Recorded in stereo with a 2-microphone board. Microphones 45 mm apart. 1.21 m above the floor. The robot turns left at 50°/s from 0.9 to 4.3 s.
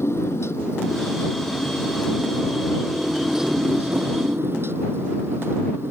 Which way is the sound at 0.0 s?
110° left.